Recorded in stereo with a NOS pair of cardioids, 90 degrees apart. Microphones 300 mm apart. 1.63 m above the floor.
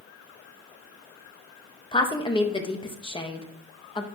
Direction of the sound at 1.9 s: 15° left.